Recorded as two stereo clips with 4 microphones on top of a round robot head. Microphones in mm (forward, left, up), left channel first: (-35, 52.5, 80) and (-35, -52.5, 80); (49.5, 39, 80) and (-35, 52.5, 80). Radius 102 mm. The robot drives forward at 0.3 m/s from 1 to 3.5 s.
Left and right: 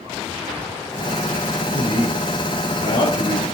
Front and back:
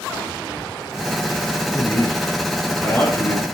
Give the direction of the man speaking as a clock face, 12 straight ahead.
10 o'clock.